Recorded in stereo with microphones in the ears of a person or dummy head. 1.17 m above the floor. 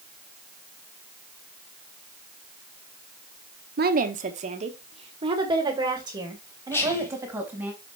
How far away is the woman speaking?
About 1.2 m.